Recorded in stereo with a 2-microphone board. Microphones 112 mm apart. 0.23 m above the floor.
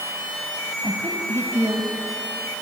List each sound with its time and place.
0.8 s a woman speaking: 25° right (ahead or behind), 1.5 m